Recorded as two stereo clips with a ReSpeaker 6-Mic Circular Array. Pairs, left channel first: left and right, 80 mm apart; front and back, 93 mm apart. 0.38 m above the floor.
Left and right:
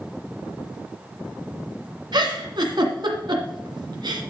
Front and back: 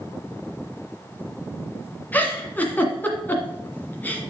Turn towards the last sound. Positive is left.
turn(degrees=-70)